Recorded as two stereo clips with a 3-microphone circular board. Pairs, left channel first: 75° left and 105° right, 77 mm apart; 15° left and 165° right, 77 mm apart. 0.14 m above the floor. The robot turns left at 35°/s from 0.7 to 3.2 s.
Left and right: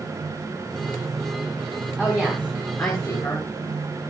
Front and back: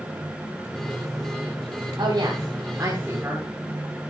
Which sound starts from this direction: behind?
A woman speaking, at 2.0 s.